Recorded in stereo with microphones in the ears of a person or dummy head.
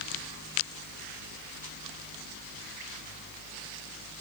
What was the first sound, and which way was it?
Only background noise.